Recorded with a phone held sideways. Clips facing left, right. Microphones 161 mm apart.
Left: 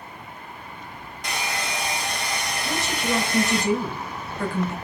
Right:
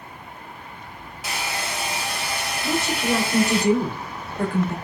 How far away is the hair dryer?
About 0.6 m.